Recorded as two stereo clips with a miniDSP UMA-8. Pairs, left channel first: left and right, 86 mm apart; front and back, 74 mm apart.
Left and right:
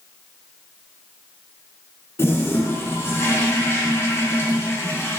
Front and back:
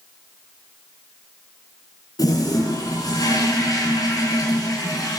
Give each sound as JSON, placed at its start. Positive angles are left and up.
{"t": 2.2, "sound": "a toilet flushing", "azimuth_deg": 30, "distance_m": 2.0}